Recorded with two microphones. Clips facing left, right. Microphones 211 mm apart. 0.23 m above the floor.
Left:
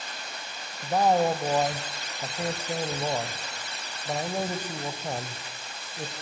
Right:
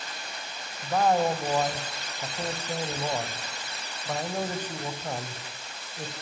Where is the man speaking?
10° left (ahead or behind), 1.4 m.